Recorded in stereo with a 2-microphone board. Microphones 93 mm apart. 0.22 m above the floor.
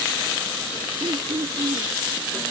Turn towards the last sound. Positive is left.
turn(degrees=-60)  # may be behind; listen again after turning